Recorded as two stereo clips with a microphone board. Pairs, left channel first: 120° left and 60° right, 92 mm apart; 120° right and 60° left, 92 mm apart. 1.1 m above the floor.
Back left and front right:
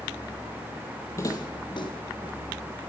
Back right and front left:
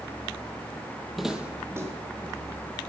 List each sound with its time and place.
1.2 s footsteps: 150° left, 1.2 m; by 2.8 s 100° left, 3 m